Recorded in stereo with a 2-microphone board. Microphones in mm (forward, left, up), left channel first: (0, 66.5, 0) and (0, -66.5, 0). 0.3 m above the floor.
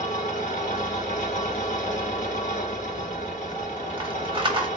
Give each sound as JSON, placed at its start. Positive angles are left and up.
{"t": 0.0, "sound": "an engine running", "side_deg": 80, "distance_m": 1.1}
{"t": 2.9, "sound": "a rattle", "side_deg": -40, "distance_m": 0.8}